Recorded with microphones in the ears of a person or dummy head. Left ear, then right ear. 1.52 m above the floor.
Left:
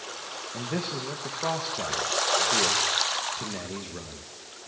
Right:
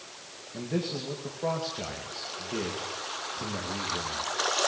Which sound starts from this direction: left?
A man speaking, at 0.5 s.